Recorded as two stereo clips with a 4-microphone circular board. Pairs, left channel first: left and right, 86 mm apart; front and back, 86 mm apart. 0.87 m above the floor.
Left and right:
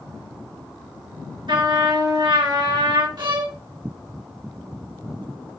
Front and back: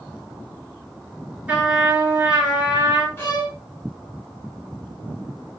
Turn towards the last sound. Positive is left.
turn(degrees=-65)